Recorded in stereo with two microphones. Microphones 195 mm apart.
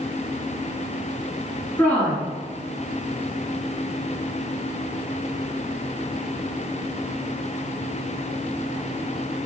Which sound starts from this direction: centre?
A woman speaking, at 1.8 s.